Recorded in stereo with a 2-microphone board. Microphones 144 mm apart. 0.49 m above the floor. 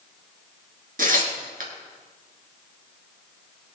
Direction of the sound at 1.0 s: 75° right (ahead or behind).